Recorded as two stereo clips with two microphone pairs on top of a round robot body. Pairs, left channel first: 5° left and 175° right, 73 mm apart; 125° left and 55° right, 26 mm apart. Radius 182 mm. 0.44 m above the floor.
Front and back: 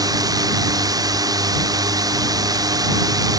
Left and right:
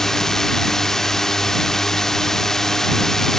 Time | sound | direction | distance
0.0 | a drone | 165° right | ?